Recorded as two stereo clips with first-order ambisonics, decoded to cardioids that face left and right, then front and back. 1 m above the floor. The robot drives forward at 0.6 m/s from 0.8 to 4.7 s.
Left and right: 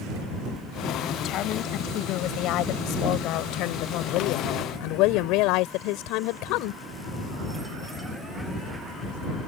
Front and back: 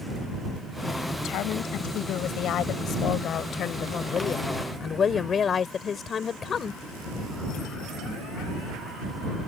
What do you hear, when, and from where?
1.2 s a woman speaking: 45° left; by 6.8 s 65° left